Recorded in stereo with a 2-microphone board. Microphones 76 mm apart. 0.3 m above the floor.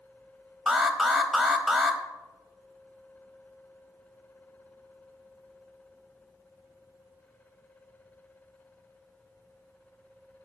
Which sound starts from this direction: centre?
An alarm, at 0.7 s.